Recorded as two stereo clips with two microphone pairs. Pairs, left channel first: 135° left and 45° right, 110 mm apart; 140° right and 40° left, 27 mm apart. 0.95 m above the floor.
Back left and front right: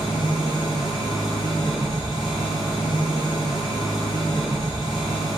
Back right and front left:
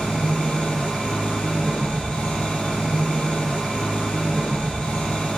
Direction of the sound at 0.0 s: 175° left.